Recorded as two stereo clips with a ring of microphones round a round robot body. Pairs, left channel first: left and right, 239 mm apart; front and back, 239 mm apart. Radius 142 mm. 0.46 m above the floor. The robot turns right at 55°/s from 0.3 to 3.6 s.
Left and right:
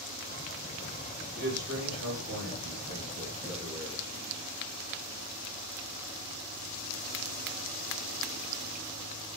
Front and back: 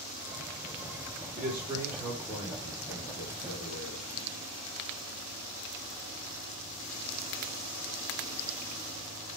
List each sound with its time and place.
1.4 s a man speaking: 140° right, 1.9 m; by 4.2 s 15° right, 1.9 m